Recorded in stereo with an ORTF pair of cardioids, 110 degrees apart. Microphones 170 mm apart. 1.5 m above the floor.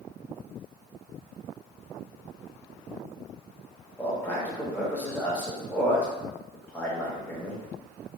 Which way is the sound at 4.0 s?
10° left.